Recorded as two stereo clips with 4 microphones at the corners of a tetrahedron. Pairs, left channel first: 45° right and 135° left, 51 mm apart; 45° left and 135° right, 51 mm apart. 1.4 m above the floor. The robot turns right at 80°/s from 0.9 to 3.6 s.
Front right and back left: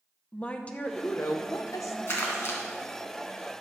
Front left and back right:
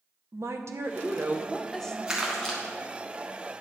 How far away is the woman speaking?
About 0.9 m.